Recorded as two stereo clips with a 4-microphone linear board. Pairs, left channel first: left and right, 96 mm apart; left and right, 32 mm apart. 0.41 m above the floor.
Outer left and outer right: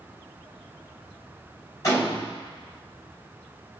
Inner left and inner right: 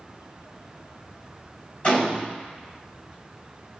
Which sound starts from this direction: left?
A gunshot, at 1.8 s.